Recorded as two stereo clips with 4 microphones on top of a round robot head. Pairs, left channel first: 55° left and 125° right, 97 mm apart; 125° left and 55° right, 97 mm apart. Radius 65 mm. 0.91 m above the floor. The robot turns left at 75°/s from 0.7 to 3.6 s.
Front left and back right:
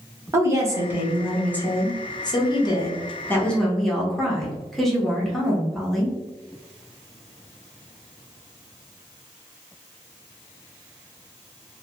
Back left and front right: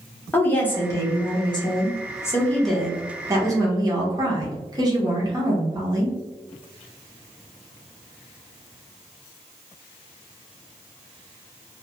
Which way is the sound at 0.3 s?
175° right.